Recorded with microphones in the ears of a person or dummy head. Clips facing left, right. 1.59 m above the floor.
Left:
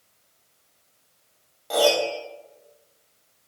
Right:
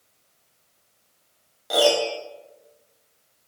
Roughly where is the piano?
Centre.